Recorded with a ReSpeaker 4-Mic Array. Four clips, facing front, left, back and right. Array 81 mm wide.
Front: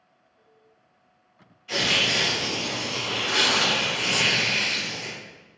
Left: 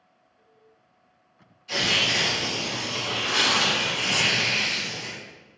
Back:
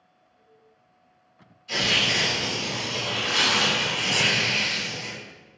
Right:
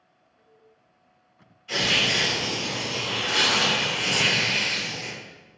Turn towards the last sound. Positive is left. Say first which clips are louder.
# right 1 dB, even
turn(degrees=-35)